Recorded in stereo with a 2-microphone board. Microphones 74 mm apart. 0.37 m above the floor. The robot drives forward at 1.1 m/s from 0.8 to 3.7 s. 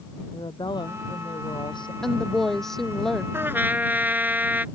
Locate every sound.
0.3 s a woman speaking: 80° left; by 1.9 s 85° left
2.0 s a woman speaking: 5° left (ahead or behind)
3.3 s a trumpet: 30° right (ahead or behind); by 4.7 s 25° right (ahead or behind)